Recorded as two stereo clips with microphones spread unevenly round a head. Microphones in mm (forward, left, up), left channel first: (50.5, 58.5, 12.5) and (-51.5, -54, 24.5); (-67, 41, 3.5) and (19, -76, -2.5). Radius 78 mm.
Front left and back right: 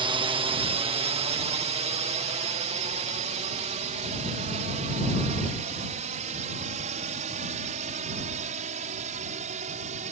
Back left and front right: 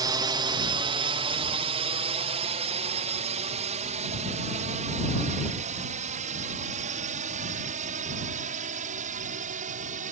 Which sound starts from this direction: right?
A drone, at 0.0 s.